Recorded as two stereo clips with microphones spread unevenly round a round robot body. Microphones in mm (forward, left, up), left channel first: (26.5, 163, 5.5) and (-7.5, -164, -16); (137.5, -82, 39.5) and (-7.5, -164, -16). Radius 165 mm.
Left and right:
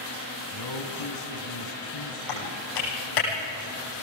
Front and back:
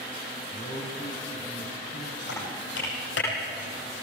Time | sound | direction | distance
0.5 | a man speaking | 95° left | 3 m
2.3 | typing on a keyboard | 55° left | 8 m